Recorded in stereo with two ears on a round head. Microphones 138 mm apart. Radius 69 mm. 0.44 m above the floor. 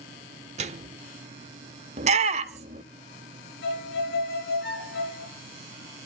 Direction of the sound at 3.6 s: 70° left (ahead or behind).